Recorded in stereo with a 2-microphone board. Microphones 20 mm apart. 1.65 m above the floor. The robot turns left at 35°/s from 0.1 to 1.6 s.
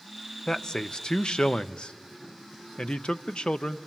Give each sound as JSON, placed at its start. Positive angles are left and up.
{"t": 0.5, "sound": "a man speaking", "azimuth_deg": 135, "distance_m": 0.6}